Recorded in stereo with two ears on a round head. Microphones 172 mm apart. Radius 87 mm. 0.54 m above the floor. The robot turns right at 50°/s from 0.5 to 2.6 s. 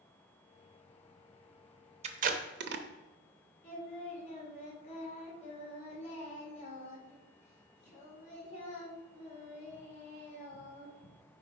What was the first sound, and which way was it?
Tape being pulled, 35° right (ahead or behind).